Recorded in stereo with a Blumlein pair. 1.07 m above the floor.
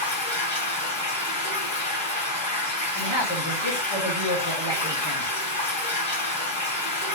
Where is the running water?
55° left, 2.5 m.